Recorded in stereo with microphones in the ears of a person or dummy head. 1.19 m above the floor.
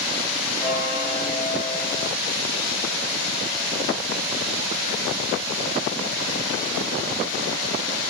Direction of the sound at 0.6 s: 15° left (ahead or behind).